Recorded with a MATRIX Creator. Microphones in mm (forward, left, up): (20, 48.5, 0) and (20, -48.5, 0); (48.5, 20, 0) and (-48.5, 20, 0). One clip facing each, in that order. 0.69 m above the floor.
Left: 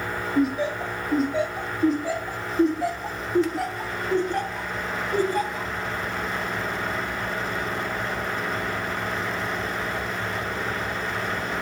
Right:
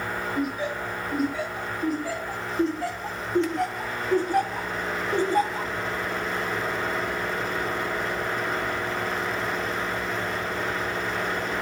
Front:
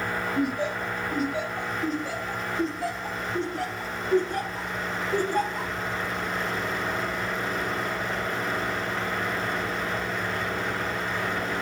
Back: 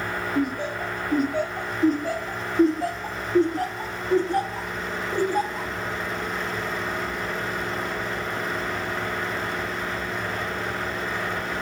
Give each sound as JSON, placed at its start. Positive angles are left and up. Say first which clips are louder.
{"t": 0.3, "sound": "laughter", "louder": "left 7 dB, back 2 dB", "azimuth_deg": 145, "distance_m": 3.0}